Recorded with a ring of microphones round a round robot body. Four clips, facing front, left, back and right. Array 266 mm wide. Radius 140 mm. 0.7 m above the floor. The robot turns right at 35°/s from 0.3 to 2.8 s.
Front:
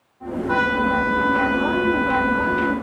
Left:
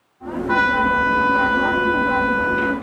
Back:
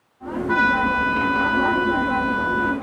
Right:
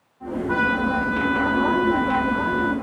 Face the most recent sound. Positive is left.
turn(degrees=165)